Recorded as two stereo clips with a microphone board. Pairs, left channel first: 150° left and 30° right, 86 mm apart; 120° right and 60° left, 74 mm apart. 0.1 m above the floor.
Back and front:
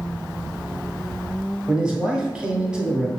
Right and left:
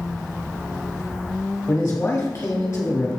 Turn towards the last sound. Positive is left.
turn(degrees=-95)